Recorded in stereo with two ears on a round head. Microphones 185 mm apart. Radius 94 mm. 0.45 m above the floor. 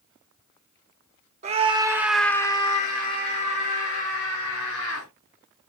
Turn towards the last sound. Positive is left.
turn(degrees=70)  # may be behind; listen again after turning